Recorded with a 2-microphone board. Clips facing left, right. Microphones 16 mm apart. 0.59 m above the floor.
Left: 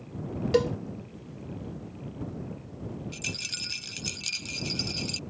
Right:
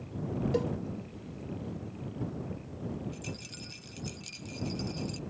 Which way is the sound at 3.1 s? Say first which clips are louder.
Left 9 dB; 40° left (ahead or behind).